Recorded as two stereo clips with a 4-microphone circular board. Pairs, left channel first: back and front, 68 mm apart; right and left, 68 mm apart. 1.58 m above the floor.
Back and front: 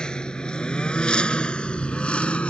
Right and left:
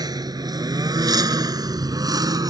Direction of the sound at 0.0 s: 100° left.